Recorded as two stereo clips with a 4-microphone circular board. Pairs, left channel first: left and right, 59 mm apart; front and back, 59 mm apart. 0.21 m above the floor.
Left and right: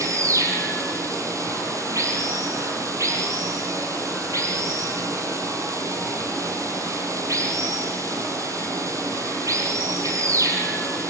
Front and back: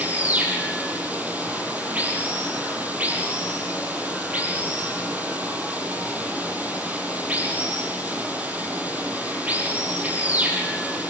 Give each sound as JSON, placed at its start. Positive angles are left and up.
{"t": 0.0, "sound": "running water", "azimuth_deg": -115, "distance_m": 5.5}